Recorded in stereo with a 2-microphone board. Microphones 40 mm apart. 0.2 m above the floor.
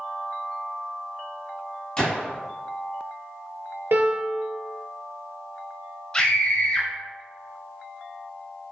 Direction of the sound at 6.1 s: 25° left (ahead or behind).